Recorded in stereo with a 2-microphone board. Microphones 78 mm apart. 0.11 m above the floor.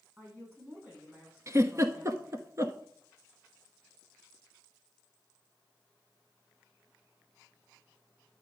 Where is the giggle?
40° right (ahead or behind), 1.0 m.